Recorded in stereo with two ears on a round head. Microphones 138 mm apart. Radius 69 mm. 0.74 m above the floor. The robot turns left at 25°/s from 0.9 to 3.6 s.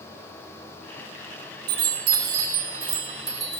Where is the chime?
110° right, 6 m; by 3.6 s 160° right, 6 m.